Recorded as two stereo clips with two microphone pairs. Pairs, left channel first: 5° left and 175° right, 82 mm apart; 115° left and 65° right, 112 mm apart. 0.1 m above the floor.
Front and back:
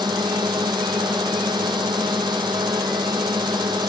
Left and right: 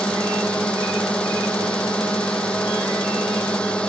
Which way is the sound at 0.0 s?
170° right.